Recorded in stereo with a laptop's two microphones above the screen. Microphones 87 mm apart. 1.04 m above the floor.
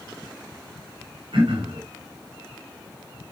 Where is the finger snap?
No finger snap in this recording.